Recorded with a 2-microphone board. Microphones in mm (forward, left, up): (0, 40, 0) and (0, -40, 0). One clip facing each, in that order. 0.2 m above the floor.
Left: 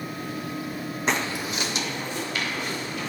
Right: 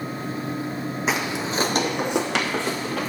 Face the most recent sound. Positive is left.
turn(degrees=-80)